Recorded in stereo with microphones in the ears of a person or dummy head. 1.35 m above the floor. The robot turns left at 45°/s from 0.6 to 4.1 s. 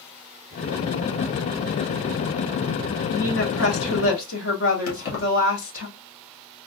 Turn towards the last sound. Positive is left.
turn(degrees=70)  # may be behind; listen again after turning